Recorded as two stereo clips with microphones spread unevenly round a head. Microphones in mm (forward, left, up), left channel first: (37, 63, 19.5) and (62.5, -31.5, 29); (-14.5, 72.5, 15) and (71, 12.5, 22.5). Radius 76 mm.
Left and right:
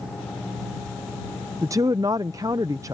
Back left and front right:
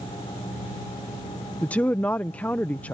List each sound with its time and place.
1.6 s a woman speaking: 135° right